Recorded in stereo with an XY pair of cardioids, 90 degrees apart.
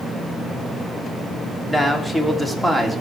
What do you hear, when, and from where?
1.7 s a man speaking: 15° left, 3 m; by 3.0 s straight ahead, 3 m